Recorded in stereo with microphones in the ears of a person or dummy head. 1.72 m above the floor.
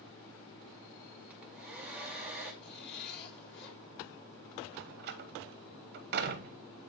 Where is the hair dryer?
5° right (ahead or behind), 1.8 m.